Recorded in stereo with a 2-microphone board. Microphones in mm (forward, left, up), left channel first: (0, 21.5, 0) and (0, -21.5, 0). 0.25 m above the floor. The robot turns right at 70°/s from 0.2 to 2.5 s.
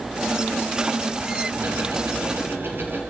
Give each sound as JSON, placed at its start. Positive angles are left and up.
{"t": 1.5, "sound": "ticking", "azimuth_deg": -125, "distance_m": 5.5}